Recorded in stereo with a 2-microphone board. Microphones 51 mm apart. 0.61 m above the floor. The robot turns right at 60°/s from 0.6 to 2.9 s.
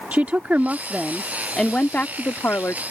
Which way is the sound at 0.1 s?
40° right.